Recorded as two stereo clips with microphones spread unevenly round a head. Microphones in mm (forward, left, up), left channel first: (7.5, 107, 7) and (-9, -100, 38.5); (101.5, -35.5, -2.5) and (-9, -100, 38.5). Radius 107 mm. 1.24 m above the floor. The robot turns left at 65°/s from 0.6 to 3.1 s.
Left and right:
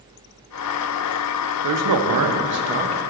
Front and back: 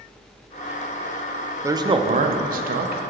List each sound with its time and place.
1.6 s a man speaking: 75° right, 0.6 m; by 3.1 s 170° right, 0.6 m